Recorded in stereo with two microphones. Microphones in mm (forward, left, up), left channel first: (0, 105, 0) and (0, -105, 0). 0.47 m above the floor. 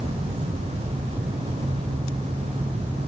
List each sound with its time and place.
Only background noise.